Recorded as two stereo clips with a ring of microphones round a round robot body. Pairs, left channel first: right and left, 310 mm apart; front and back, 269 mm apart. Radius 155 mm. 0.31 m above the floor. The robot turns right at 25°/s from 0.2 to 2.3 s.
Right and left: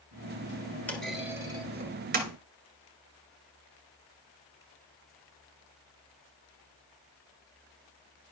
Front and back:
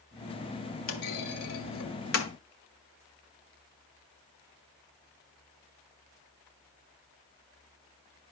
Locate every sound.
0.9 s a clunk: 5° right, 2.0 m; by 2.3 s 30° left, 2.0 m